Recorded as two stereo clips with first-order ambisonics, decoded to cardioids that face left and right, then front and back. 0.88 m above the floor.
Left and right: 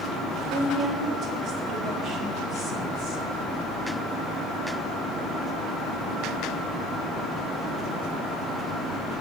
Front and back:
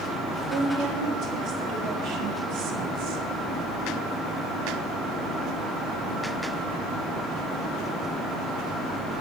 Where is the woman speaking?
160° right, 2.5 m; by 3.2 s 140° left, 0.9 m.